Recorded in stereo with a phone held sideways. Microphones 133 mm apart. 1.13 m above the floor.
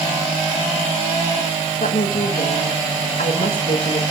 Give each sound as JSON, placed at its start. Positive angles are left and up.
{"t": 1.8, "sound": "a woman speaking", "side_deg": 85, "distance_m": 1.5}